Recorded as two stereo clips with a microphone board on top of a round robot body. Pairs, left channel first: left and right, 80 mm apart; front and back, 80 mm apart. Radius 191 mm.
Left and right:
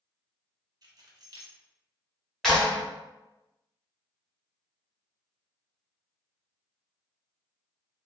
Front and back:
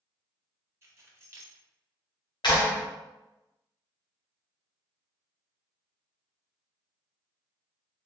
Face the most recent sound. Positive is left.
turn(degrees=5)